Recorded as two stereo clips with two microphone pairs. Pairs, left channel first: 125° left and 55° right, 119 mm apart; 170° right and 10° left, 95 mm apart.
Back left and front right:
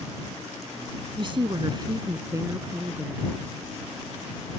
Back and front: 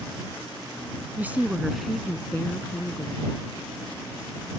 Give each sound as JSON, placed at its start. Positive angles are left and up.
{"t": 1.2, "sound": "a woman speaking", "azimuth_deg": -55}